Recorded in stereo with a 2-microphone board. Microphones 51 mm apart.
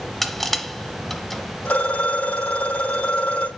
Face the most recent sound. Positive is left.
turn(degrees=30)  # may be behind; listen again after turning